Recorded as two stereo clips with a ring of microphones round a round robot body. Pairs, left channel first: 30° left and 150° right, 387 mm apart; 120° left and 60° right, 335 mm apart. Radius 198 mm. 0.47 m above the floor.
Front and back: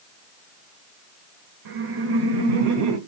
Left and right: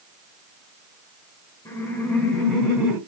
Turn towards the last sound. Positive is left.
turn(degrees=-145)